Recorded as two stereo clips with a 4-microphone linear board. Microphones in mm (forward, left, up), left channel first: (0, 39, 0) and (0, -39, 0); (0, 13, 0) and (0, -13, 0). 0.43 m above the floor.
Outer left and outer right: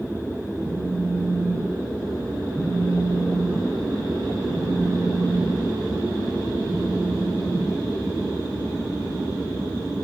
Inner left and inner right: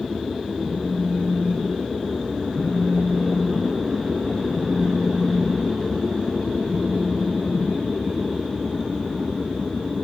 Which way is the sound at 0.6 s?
40° left (ahead or behind).